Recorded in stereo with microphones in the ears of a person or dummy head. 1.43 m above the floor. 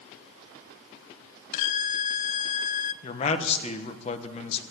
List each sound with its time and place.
1.5 s a violin: 40° left (ahead or behind), 0.7 m
3.0 s a man speaking: 30° left (ahead or behind), 1.2 m